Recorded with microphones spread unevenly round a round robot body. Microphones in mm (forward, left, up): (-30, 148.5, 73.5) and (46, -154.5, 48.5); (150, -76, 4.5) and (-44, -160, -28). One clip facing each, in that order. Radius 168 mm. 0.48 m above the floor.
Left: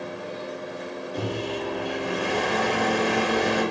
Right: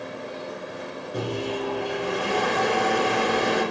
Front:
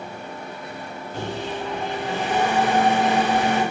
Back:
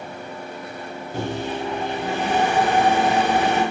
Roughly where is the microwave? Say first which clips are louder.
Right 2 dB, back 3 dB; behind right.